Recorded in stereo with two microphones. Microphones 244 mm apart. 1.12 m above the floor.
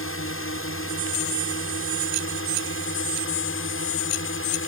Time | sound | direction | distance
0.0 | a drone | 60° left (ahead or behind) | ?